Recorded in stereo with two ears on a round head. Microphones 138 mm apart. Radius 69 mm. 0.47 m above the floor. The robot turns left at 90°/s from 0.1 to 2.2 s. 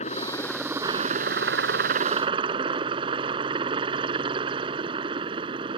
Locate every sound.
0.0 s a helicopter: 45° left; by 5.8 s 145° right